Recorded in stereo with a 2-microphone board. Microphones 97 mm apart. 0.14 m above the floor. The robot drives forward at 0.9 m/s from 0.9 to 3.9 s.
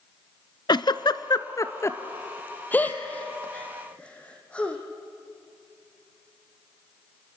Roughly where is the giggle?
Left.